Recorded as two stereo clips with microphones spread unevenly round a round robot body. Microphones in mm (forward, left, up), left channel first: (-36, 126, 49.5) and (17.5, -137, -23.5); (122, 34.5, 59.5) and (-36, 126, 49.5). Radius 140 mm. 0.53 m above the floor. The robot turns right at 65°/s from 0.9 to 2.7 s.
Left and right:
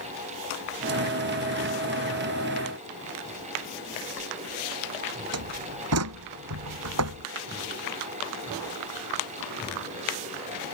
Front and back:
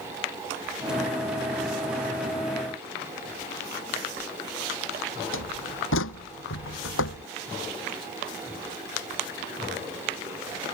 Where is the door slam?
40° right.